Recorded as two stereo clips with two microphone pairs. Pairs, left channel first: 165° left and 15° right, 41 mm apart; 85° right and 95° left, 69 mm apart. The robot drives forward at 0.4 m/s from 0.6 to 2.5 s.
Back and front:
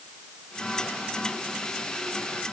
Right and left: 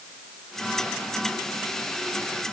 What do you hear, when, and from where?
Only background noise.